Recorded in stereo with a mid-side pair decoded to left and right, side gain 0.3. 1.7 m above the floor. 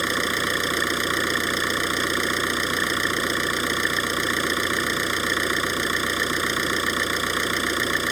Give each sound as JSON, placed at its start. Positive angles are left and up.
{"t": 0.0, "sound": "an engine running", "azimuth_deg": -15}